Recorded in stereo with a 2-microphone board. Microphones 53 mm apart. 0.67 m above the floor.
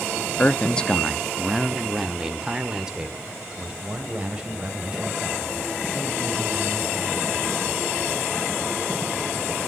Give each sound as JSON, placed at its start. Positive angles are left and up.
{"t": 0.4, "sound": "a man speaking", "side_deg": 30, "distance_m": 0.6}